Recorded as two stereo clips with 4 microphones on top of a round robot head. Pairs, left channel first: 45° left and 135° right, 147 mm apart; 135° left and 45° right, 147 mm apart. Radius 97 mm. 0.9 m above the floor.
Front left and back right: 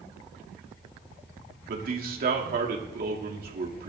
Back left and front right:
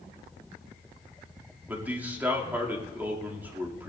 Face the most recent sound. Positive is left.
turn(degrees=-120)